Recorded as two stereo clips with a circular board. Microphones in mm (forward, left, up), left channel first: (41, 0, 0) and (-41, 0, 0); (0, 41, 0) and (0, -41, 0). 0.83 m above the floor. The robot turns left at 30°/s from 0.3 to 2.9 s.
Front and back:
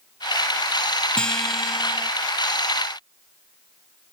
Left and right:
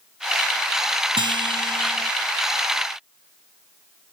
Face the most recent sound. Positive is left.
turn(degrees=-130)